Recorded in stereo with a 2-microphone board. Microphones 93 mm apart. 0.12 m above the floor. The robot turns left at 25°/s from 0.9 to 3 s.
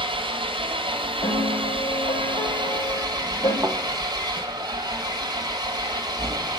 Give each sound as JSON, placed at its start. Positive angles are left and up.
{"t": 0.0, "sound": "an engine running", "azimuth_deg": -80, "distance_m": 2.0}
{"t": 1.2, "sound": "a piano", "azimuth_deg": 100, "distance_m": 3.5}
{"t": 3.6, "sound": "a thud", "side_deg": -25, "distance_m": 1.4}